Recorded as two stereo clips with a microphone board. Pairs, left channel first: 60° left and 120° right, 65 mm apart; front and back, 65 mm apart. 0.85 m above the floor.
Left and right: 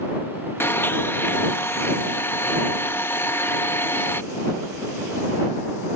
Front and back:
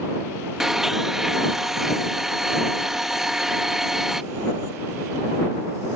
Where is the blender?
95° left.